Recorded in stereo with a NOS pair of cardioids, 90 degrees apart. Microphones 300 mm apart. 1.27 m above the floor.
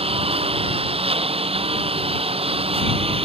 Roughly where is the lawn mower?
Ahead.